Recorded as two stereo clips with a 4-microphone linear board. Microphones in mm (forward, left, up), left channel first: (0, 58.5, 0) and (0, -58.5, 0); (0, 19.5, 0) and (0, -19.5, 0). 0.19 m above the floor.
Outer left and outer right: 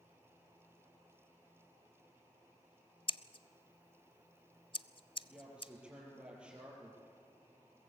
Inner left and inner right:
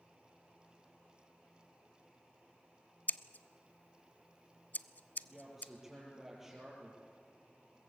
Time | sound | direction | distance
3.1 | scissors | 45° left (ahead or behind) | 0.5 m
5.2 | a woman speaking | 10° right (ahead or behind) | 5.5 m